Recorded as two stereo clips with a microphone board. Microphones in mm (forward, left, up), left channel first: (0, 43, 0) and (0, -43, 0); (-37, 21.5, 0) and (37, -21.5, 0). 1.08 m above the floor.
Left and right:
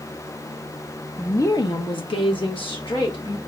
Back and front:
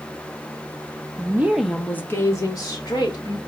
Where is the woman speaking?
20° left, 0.8 m; by 3.4 s 115° left, 2.5 m.